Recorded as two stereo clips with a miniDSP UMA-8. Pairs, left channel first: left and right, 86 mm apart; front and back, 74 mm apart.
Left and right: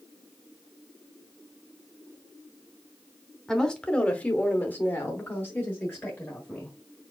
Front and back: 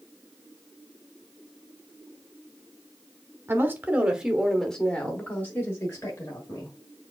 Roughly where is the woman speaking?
Behind.